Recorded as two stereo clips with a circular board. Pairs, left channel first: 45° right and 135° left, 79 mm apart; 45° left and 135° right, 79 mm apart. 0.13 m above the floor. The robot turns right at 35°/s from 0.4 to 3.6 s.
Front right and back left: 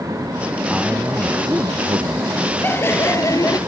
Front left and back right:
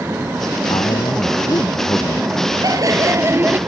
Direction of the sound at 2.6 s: 110° right.